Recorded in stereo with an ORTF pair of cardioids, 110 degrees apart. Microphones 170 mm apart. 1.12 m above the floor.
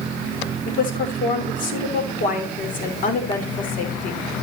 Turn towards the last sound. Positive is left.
turn(degrees=55)